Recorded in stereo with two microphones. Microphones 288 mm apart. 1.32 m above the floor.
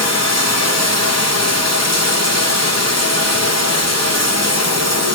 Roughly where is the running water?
Left.